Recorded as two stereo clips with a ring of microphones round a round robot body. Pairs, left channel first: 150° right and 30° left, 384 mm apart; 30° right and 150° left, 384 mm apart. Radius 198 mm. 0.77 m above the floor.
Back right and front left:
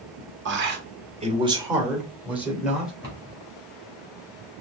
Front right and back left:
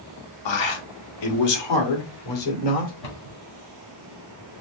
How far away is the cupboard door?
About 3 m.